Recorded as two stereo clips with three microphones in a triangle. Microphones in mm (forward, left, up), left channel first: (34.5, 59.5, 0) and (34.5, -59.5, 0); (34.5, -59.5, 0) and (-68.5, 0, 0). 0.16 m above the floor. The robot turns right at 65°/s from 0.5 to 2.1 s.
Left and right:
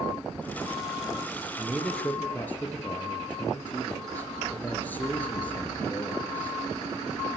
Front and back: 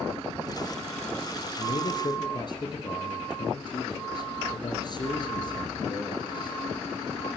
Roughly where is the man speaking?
Ahead.